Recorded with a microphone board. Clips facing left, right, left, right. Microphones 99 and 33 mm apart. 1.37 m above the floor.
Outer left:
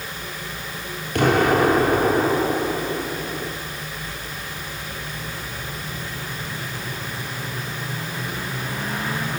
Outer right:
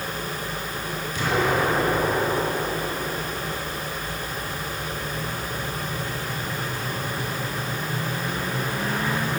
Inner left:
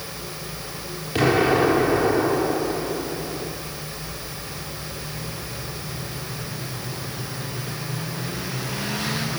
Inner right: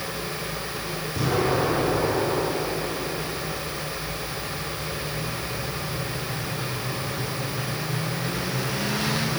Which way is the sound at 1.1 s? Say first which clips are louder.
Outer left 6 dB, inner left 6 dB; 55° left (ahead or behind).